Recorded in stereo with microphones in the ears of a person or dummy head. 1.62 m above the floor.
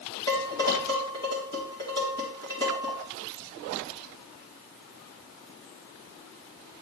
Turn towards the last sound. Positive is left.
turn(degrees=20)  # may be behind; listen again after turning